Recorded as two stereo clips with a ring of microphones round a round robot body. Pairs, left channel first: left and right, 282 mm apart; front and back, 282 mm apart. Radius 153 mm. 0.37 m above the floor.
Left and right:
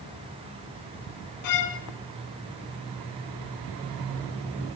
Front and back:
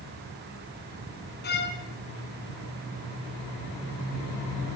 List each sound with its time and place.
1.4 s a violin: 60° left, 2 m